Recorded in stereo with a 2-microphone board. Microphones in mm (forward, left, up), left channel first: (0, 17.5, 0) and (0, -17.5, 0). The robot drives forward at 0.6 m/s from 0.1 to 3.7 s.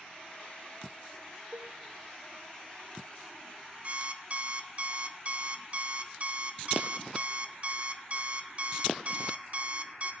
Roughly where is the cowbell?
Right.